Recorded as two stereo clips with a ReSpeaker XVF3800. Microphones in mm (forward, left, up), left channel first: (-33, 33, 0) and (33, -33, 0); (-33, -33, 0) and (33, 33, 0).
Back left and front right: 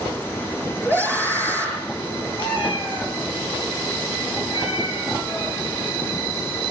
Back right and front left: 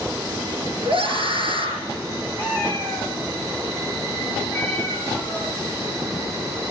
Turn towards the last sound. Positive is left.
turn(degrees=155)